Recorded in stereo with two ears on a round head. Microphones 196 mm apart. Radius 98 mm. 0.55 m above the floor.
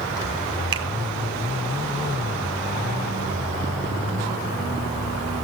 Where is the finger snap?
25° right (ahead or behind), 2.5 m.